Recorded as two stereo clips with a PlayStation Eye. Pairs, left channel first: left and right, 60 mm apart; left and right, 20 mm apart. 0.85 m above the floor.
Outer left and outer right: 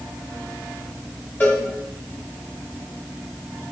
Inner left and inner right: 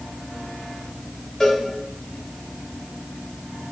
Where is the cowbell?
35° left (ahead or behind), 3.5 m.